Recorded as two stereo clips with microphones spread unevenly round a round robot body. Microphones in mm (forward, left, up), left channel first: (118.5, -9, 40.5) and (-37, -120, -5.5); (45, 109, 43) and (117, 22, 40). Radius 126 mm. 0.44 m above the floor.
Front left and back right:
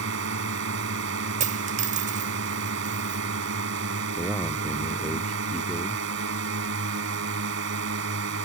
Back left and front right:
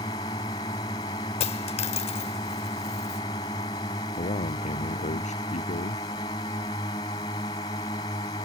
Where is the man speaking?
125° left.